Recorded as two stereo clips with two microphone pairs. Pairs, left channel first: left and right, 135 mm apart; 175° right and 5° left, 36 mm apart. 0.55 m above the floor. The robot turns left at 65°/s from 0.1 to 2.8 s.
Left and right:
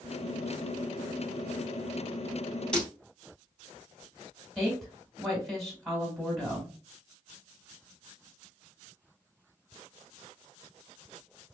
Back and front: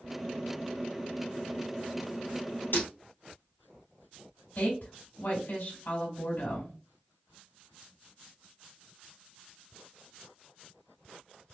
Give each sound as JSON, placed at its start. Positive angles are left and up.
{"t": 2.7, "sound": "breaking glass", "azimuth_deg": 170, "distance_m": 1.9}
{"t": 4.5, "sound": "a woman speaking", "azimuth_deg": 175, "distance_m": 2.5}